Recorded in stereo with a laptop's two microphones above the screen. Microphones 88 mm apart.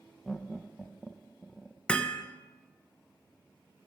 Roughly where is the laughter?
Centre.